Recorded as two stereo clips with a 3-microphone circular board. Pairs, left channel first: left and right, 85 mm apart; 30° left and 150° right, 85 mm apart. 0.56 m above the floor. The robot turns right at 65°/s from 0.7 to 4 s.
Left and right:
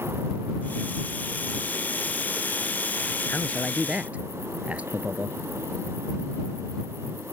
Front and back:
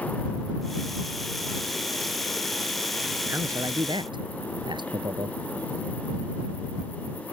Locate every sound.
3.3 s a man speaking: 150° left; by 5.4 s 160° right